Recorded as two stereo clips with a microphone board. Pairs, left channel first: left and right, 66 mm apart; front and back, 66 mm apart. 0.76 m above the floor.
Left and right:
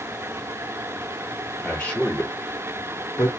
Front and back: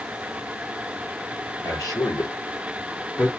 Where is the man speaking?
15° left, 1.9 m; by 3.3 s 60° left, 1.6 m.